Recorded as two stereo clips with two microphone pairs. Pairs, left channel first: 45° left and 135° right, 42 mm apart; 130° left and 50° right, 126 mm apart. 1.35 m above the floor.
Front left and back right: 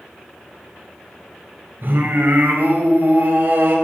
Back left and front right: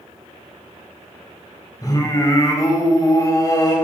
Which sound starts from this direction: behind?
Singing, at 1.8 s.